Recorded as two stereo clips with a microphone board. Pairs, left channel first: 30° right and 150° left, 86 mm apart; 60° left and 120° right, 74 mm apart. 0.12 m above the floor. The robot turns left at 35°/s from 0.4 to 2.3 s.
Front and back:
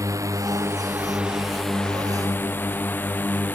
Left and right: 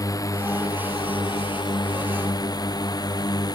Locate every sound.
0.0 s a drone: 100° left; by 3.5 s 40° left